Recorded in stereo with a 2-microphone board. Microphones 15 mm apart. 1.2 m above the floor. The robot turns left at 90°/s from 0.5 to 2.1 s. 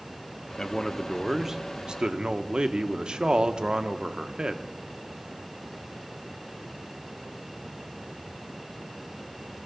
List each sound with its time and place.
0.6 s a man speaking: 50° left, 0.8 m; by 4.6 s 85° right, 0.8 m